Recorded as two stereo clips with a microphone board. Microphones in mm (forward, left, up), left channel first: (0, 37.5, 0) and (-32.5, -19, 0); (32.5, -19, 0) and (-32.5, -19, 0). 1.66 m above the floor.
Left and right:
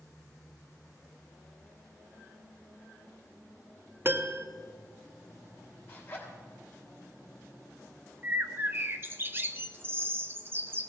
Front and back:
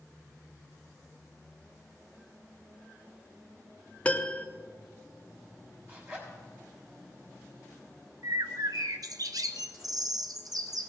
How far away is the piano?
About 0.7 m.